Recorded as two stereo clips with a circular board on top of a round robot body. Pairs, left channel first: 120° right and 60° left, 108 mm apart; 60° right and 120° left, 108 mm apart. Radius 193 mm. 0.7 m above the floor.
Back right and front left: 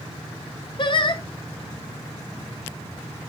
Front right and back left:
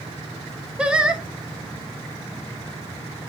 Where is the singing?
160° right, 1.2 m.